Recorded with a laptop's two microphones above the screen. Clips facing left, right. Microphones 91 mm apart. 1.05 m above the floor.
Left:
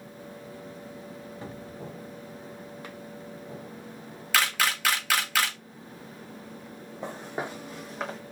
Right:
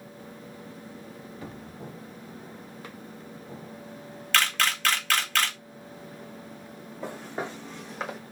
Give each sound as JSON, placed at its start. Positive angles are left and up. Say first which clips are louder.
{"t": 1.4, "sound": "a cupboard door", "louder": "left 1 dB", "side_deg": 30, "distance_m": 1.8}
{"t": 4.3, "sound": "a camera shutter", "louder": "even", "side_deg": 10, "distance_m": 1.2}
{"t": 7.0, "sound": "footsteps", "louder": "even", "side_deg": 20, "distance_m": 2.5}